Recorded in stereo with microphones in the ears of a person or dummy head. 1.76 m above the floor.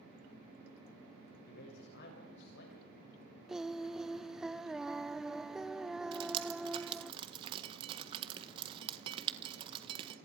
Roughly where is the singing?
Centre.